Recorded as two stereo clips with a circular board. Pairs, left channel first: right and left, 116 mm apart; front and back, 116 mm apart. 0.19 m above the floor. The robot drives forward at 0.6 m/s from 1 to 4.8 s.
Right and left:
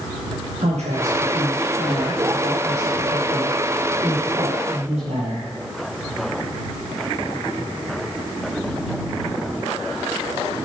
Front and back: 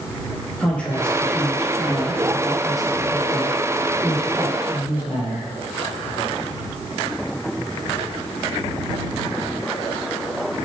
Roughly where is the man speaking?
Left.